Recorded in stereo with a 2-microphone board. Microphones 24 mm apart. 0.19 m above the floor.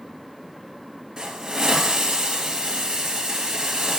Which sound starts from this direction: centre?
A hiss, at 1.2 s.